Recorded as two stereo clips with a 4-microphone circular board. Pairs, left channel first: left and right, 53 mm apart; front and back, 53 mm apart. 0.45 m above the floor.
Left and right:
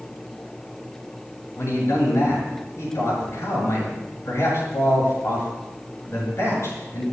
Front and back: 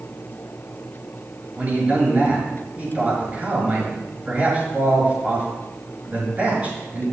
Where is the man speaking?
120° left, 7.5 m.